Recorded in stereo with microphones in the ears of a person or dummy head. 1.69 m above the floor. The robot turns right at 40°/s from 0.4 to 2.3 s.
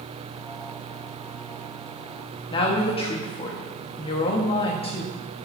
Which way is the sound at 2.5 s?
30° left (ahead or behind).